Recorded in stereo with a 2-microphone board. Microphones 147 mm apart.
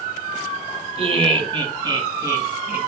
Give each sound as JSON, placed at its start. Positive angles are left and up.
{"t": 1.0, "sound": "laughter", "side_deg": -40, "distance_m": 2.5}